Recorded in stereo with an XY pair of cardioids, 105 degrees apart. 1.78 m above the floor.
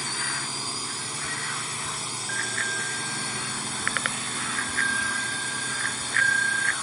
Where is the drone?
5° right; by 6.8 s straight ahead.